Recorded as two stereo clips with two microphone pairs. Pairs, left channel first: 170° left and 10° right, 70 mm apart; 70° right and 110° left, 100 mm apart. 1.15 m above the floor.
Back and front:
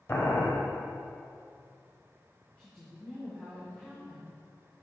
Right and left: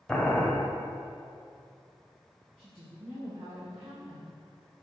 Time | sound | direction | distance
0.1 | boiling | 150° right | 0.9 m
2.6 | a woman speaking | 100° left | 1.5 m